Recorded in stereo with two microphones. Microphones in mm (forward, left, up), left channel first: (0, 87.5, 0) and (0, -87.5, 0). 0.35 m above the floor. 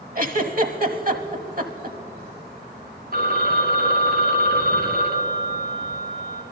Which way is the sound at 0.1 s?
55° right (ahead or behind).